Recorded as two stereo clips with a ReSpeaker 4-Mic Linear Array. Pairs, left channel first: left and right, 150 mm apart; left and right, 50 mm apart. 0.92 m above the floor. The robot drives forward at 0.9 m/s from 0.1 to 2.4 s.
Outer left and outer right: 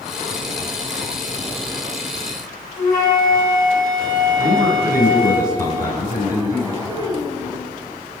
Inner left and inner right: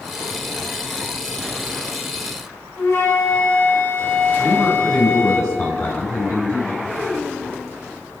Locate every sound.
2.8 s a flute: 80° left, 5.5 m
4.4 s a man speaking: 85° left, 5.5 m
6.8 s a child speaking: 90° left, 10 m